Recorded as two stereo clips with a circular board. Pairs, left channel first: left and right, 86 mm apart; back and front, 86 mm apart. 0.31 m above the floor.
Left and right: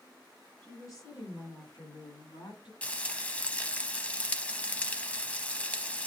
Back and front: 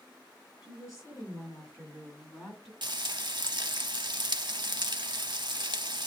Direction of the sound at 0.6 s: 140° left.